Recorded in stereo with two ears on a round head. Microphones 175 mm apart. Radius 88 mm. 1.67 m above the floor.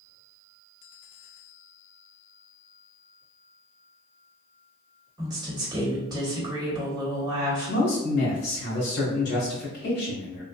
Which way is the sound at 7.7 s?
55° left (ahead or behind).